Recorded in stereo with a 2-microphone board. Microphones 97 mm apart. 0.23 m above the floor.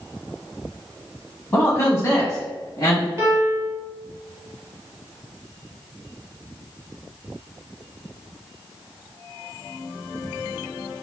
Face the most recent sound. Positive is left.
turn(degrees=-25)  # may be behind; listen again after turning